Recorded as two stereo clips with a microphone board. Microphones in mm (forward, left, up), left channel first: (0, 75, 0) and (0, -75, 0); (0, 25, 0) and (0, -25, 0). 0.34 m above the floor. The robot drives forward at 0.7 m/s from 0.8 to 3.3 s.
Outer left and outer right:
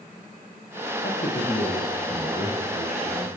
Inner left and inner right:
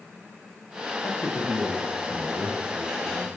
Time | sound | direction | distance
1.0 | a man speaking | 65° left (ahead or behind) | 10 m